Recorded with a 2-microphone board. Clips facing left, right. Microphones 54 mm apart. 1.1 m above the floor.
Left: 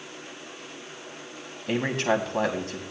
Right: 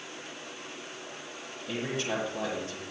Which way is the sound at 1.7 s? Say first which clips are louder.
Left 8 dB; 75° left (ahead or behind).